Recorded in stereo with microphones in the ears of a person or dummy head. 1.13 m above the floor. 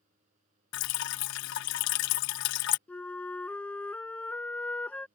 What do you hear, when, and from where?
0.7 s dripping: 60° left (ahead or behind)
2.9 s a flute: 10° left (ahead or behind)